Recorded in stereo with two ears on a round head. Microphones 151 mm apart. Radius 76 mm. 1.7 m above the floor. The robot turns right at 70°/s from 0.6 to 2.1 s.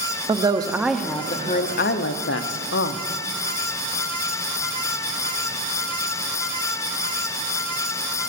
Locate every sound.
0.3 s a woman speaking: 25° right, 0.6 m; by 3.0 s 80° left, 0.6 m